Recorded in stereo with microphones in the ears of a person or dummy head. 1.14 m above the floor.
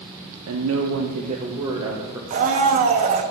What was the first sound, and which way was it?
A woman speaking, 70° right (ahead or behind).